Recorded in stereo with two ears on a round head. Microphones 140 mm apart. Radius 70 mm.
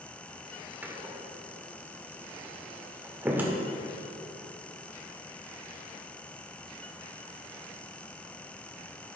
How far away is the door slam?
About 1.4 m.